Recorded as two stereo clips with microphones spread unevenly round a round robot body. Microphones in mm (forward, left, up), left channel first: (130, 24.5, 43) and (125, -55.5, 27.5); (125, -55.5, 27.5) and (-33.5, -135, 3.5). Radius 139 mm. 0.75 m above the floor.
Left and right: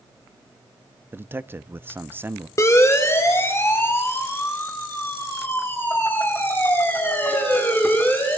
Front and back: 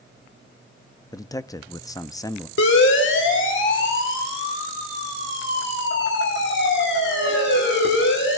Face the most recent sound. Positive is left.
turn(degrees=20)